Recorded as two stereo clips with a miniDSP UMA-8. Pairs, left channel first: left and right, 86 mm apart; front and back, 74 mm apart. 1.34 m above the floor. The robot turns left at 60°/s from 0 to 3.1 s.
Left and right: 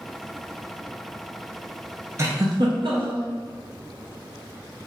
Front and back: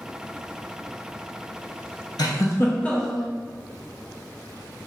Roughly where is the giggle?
Ahead right.